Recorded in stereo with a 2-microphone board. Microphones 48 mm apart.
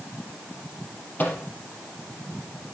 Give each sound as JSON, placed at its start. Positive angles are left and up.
{"t": 1.2, "sound": "a microwave", "side_deg": 35, "distance_m": 4.5}